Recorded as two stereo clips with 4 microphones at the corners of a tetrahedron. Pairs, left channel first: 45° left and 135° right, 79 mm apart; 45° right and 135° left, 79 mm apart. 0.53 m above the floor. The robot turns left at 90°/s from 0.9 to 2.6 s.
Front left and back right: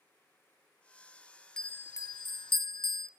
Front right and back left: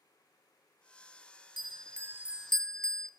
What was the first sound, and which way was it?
A bell, 125° left.